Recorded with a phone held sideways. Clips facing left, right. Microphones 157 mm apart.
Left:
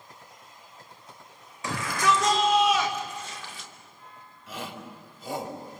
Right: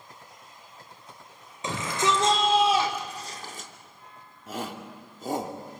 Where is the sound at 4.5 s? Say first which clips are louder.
Right 3 dB; 45° right (ahead or behind), 3 m.